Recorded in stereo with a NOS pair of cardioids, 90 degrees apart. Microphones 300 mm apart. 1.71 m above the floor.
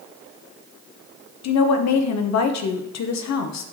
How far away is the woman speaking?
About 1.1 m.